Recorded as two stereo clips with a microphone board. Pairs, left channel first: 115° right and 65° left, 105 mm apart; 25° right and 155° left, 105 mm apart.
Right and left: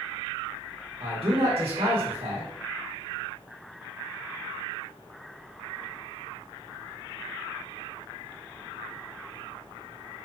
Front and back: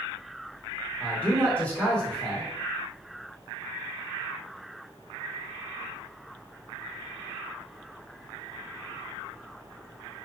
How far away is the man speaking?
About 1.7 m.